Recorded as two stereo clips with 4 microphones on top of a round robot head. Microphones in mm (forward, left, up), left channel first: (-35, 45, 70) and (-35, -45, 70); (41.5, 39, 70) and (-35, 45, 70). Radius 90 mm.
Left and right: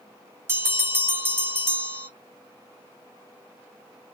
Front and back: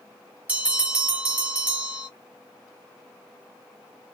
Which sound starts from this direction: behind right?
A bell, at 0.5 s.